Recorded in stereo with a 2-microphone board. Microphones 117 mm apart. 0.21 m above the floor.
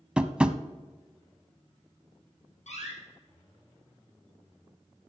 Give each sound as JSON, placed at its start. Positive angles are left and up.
{"t": 0.2, "sound": "tapping", "side_deg": -10, "distance_m": 0.6}
{"t": 2.7, "sound": "a door slam", "side_deg": 80, "distance_m": 6.0}